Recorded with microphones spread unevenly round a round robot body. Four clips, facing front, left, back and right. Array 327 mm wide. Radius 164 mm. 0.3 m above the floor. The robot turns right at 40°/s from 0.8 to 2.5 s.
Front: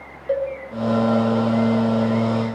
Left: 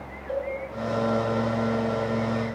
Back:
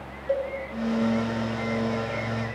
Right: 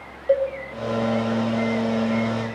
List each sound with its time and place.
0.3 s a cowbell: 65° right, 1.3 m